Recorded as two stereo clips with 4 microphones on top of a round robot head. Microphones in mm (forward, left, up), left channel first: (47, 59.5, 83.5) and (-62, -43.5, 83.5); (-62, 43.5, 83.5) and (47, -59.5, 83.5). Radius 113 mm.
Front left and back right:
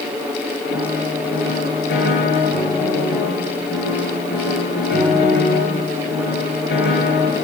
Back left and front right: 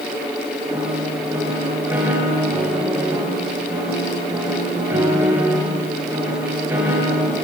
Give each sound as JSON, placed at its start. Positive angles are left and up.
{"t": 0.7, "sound": "a piano", "azimuth_deg": 35, "distance_m": 8.0}